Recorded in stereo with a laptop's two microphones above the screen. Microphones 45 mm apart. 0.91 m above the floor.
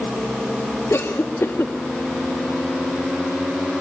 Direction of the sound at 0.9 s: 65° left (ahead or behind).